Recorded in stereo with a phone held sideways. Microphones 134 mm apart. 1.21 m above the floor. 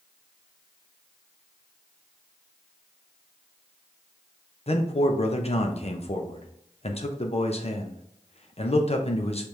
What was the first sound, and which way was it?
A man speaking, 50° left (ahead or behind).